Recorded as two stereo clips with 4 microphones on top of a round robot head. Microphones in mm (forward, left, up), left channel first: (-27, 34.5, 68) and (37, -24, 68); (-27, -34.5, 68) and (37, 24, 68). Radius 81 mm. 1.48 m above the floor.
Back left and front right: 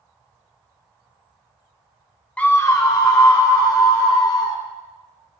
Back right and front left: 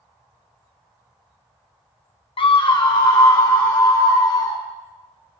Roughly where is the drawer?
I don't hear a drawer.